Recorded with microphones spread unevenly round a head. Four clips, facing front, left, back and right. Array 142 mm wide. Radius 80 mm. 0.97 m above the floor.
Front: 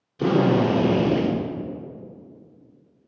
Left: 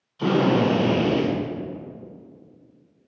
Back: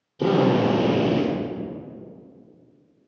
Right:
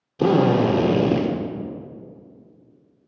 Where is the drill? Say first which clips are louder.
Right 2 dB, even; 95° right, 1.1 m.